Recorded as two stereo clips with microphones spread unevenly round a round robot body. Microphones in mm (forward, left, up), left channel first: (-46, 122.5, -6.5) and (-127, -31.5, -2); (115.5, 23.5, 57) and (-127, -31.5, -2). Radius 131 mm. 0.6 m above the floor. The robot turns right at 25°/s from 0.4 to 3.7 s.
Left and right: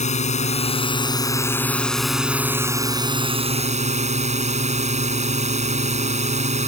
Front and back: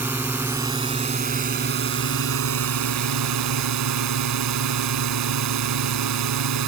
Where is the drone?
110° left; by 6.7 s 165° right.